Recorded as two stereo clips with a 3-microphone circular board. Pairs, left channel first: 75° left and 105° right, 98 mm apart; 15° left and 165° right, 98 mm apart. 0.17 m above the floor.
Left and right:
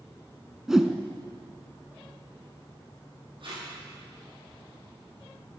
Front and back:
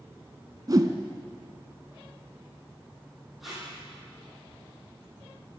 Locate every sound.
0.7 s a whoosh: 175° left, 0.6 m
3.4 s tape being pulled: 75° right, 5.5 m